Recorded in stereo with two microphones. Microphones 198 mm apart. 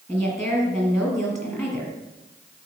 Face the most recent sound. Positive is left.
turn(degrees=15)  # may be behind; listen again after turning